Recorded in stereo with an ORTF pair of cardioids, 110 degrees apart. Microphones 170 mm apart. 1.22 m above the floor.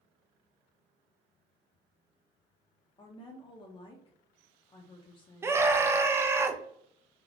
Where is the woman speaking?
30° left, 0.6 m.